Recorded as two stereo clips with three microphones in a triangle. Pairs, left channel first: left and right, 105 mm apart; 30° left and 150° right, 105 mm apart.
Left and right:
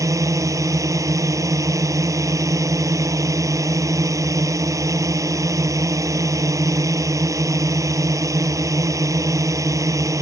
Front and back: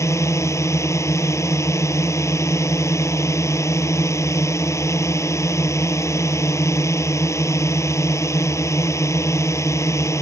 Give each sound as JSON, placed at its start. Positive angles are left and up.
{"t": 0.0, "sound": "a drone", "azimuth_deg": -30}